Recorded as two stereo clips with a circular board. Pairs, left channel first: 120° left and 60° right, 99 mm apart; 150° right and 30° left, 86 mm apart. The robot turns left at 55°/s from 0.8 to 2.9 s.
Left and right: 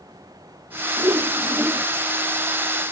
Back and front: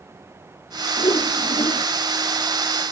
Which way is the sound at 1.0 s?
105° right.